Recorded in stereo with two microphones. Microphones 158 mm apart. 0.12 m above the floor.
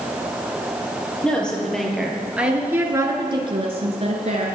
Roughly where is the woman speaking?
Centre.